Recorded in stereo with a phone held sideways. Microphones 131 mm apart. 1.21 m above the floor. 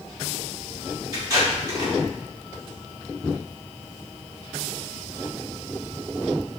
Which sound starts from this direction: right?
Tape being pulled, at 1.1 s.